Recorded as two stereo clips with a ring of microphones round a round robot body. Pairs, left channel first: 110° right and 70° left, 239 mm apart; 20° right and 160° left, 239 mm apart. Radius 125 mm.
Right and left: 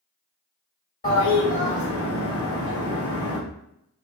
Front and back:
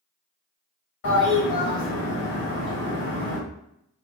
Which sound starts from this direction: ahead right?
A toilet flushing, at 1.0 s.